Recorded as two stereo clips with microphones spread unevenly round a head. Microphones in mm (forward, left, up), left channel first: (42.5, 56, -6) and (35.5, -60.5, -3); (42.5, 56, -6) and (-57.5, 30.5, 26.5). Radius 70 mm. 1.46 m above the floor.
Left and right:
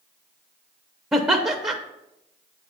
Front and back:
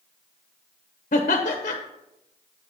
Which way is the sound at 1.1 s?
15° right.